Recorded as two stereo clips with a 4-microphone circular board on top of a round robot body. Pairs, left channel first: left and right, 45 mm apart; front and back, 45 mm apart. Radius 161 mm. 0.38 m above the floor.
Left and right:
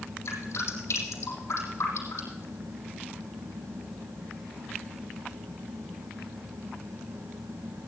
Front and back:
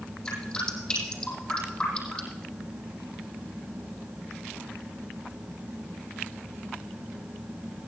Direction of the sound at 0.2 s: 65° left.